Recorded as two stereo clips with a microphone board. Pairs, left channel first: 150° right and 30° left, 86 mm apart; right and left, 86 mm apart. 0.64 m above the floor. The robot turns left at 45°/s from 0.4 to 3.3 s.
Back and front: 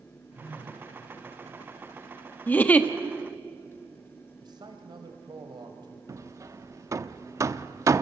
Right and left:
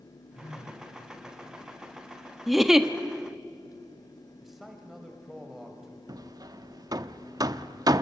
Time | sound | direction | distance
0.3 | a phone buzzing | 35° right | 7.5 m
2.5 | a giggle | straight behind | 1.1 m
4.4 | a man speaking | straight ahead | 3.5 m
6.1 | hammering | 65° left | 0.7 m